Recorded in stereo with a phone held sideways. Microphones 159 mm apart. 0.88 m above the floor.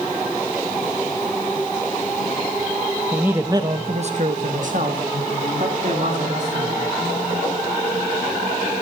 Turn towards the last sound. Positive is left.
turn(degrees=-55)  # may be behind; listen again after turning